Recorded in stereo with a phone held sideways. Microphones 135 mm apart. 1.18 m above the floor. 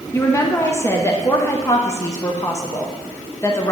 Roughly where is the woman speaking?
Left.